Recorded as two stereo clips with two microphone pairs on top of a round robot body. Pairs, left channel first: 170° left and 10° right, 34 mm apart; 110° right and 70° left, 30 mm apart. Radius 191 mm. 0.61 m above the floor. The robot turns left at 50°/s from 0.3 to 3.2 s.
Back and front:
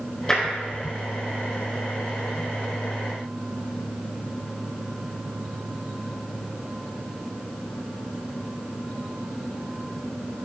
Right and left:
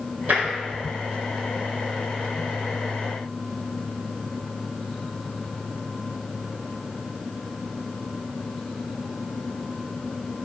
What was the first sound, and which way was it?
Tapping, 95° left.